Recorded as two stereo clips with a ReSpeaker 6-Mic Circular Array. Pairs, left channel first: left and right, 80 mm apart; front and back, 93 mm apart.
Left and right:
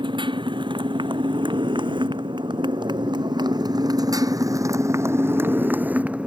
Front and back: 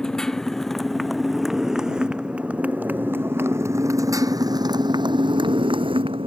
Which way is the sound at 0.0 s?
85° right.